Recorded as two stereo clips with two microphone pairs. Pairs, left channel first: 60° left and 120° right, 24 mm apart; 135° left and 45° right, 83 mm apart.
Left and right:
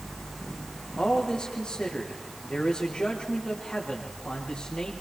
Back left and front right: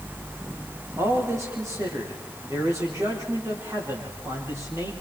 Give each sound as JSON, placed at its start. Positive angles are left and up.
{"t": 1.0, "sound": "a man speaking", "azimuth_deg": 5, "distance_m": 6.0}